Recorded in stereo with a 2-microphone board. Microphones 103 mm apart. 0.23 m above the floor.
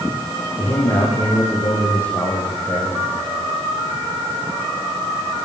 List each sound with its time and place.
0.6 s a man speaking: 30° left (ahead or behind), 9 m